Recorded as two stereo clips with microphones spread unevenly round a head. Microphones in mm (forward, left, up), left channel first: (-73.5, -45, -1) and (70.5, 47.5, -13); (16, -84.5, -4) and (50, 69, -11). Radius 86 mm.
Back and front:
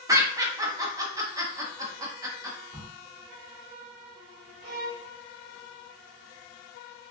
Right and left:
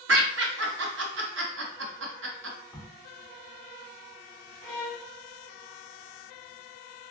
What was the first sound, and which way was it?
Laughter, 105° left.